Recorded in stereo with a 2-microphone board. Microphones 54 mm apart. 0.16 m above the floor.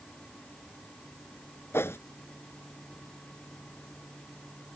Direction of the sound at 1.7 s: 55° left (ahead or behind).